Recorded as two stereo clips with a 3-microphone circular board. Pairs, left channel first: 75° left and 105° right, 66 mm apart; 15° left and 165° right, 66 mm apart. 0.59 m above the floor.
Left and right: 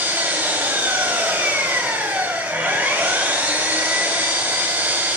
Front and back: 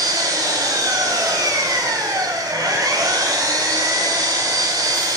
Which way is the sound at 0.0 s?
165° right.